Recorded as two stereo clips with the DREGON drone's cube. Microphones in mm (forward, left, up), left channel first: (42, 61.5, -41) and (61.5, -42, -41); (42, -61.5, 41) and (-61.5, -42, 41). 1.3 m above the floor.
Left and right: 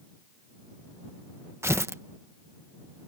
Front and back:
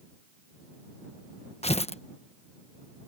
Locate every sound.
1.6 s tearing paper: 15° right